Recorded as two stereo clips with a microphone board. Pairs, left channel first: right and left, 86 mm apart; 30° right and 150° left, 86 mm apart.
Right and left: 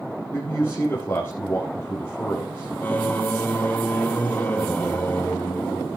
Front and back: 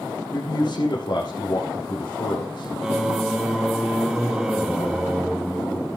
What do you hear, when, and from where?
0.3 s a man speaking: 30° right, 2.5 m
2.8 s singing: 135° right, 0.6 m